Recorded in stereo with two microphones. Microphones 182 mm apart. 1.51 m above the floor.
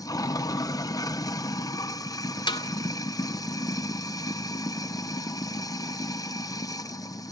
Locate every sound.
0.0 s running water: 20° left (ahead or behind), 0.7 m
2.5 s a snare drum: 25° left (ahead or behind), 2 m